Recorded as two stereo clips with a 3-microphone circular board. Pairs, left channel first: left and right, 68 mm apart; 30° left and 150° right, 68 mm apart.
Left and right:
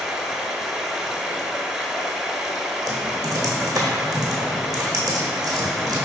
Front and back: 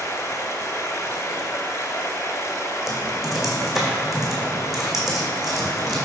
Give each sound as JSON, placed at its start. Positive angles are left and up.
{"t": 0.0, "sound": "running water", "azimuth_deg": -10, "distance_m": 0.8}
{"t": 2.9, "sound": "typing on a keyboard", "azimuth_deg": -60, "distance_m": 1.8}